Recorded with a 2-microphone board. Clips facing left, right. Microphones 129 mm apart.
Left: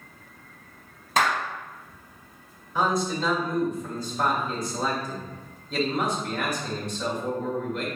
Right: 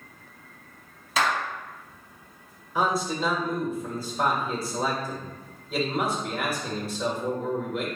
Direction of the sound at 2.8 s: 5° right (ahead or behind).